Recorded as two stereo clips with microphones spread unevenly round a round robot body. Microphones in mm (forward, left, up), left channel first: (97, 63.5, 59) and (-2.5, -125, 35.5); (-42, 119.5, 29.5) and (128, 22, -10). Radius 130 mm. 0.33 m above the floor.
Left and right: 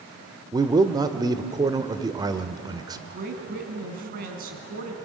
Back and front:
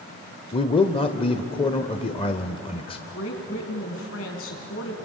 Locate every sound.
0.5 s a man speaking: 150° right, 1.0 m
3.1 s a woman speaking: 165° right, 3.5 m